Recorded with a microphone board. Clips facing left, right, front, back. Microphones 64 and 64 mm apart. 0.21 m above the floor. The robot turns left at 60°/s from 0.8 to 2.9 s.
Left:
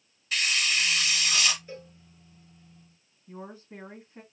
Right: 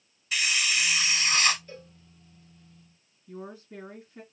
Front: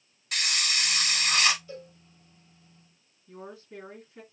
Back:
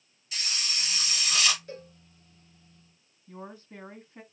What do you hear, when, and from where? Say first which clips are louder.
0.3 s a hiss: even, front 6 dB; 5° right, 1.1 m; by 1.6 s 55° right, 1.1 m
1.7 s a cowbell: left 3 dB, even; 165° left, 2 m; by 1.9 s 150° left, 2 m
3.3 s a woman speaking: right 1 dB, even; 130° left, 2.0 m